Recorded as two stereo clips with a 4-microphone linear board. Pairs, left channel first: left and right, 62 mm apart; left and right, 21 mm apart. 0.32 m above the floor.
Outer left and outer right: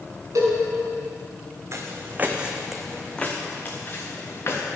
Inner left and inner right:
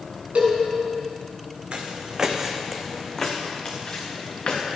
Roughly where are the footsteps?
Right.